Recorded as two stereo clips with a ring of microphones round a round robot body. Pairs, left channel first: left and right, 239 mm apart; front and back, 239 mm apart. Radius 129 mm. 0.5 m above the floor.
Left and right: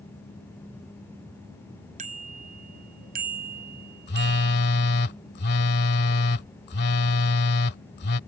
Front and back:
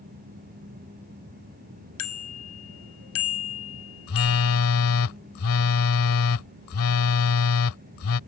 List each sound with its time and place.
2.0 s a bicycle bell: 25° right; by 4.6 s 35° right
4.1 s a phone buzzing: 35° left